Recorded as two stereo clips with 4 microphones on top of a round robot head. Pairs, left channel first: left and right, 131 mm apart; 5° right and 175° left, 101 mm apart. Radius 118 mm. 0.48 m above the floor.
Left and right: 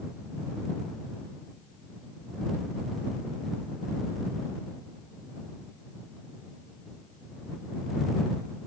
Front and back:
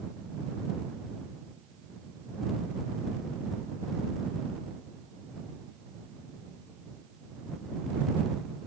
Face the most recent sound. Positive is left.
No sound to turn to.